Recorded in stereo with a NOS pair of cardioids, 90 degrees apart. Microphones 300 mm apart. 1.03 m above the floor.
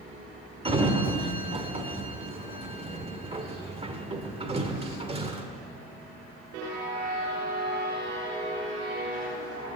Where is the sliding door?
20° right, 1.5 m.